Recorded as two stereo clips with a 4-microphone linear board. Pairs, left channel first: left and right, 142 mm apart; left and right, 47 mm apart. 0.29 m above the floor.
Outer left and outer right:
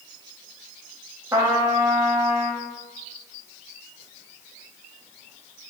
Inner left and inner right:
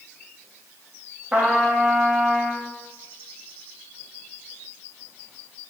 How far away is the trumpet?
About 0.7 m.